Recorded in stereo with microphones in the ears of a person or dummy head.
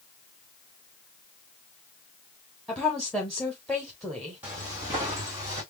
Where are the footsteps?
10° right (ahead or behind), 2.5 m; by 5.6 s 15° right (ahead or behind), 3 m.